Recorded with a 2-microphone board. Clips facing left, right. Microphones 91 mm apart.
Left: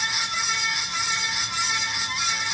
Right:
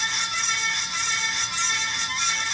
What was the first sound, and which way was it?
Only background noise.